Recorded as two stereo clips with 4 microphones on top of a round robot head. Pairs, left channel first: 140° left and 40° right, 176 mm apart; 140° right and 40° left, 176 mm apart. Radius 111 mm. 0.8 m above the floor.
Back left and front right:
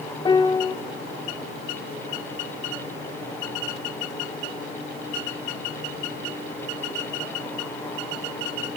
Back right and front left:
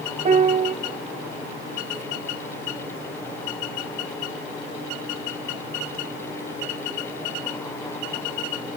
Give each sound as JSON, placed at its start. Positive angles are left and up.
{"t": 0.2, "sound": "a piano", "azimuth_deg": 80, "distance_m": 0.5}